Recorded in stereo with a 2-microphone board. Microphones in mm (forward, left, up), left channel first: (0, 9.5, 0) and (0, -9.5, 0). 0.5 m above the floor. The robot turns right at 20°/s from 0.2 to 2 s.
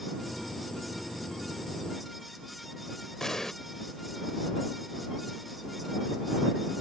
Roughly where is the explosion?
Left.